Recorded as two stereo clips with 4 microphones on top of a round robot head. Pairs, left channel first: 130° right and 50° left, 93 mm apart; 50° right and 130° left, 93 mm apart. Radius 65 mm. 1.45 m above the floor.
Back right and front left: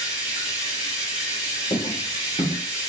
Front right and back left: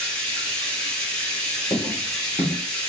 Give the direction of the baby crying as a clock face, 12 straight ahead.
I don't hear a baby crying.